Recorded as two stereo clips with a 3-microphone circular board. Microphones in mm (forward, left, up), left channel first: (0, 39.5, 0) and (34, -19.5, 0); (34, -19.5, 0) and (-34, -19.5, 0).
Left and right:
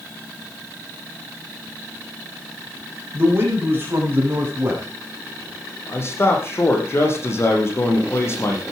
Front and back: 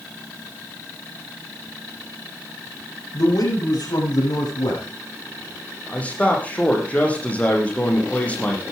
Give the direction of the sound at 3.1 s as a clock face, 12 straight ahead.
12 o'clock.